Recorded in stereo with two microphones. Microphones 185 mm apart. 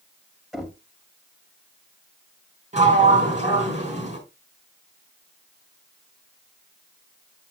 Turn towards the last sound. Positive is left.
turn(degrees=-40)  # may be behind; listen again after turning